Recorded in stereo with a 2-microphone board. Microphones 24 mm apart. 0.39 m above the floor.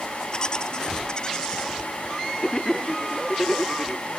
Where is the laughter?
30° left (ahead or behind).